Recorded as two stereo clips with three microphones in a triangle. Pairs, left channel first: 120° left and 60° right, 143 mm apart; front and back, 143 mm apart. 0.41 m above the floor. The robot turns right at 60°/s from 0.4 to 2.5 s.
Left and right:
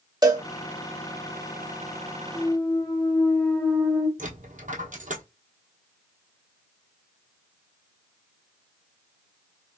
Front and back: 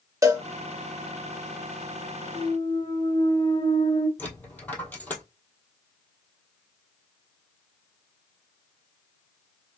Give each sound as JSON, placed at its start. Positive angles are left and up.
{"t": 0.2, "sound": "a cowbell", "azimuth_deg": -115, "distance_m": 0.8}
{"t": 2.3, "sound": "a clunk", "azimuth_deg": 40, "distance_m": 1.2}
{"t": 4.2, "sound": "a dropped coin", "azimuth_deg": -80, "distance_m": 1.2}